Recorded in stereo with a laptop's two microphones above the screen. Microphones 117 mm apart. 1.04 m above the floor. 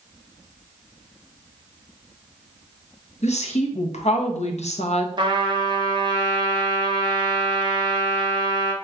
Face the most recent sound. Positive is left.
turn(degrees=-40)  # may be behind; listen again after turning